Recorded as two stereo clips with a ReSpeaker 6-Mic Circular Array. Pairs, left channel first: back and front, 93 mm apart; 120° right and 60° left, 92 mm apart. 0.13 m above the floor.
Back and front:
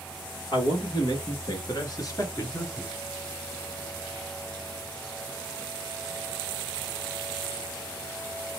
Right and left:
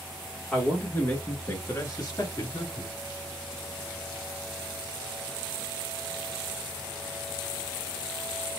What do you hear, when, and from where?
0.5 s a man speaking: 170° left, 2 m; by 3.0 s 125° right, 2.0 m